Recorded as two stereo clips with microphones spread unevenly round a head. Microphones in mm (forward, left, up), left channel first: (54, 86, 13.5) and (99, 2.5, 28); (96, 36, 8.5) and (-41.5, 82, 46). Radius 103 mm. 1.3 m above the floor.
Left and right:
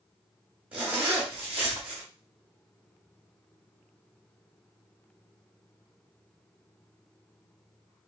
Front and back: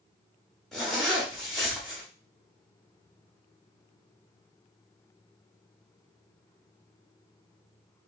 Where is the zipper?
125° right, 0.9 m.